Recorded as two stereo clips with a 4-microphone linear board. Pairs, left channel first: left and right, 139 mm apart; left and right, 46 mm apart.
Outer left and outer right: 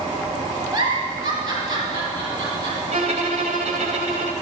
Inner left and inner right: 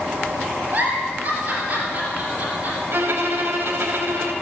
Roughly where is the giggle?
Right.